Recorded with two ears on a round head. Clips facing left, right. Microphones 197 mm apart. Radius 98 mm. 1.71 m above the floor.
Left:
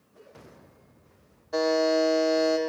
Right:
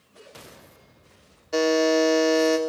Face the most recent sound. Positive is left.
turn(degrees=-35)  # may be behind; listen again after turning